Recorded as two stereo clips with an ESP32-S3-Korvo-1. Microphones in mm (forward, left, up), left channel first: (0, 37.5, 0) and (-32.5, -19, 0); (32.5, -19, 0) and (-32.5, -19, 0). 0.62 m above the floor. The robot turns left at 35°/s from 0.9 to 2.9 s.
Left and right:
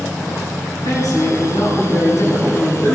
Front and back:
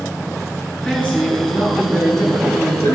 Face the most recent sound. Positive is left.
turn(degrees=0)